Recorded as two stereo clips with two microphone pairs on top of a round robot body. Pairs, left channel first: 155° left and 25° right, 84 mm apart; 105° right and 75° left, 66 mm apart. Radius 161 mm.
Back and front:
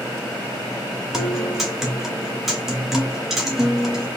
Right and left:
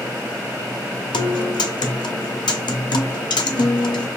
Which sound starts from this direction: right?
A guitar, at 1.1 s.